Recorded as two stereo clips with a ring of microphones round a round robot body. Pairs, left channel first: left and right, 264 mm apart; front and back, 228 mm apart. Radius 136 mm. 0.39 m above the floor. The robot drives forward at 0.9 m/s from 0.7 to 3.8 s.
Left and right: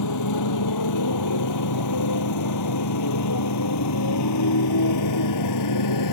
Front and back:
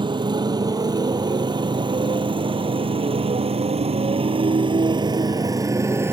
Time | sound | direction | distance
0.0 | a motorcycle | 110° left | ?